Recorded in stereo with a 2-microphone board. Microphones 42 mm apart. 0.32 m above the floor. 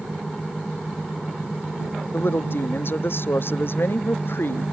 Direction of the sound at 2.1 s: 60° left (ahead or behind).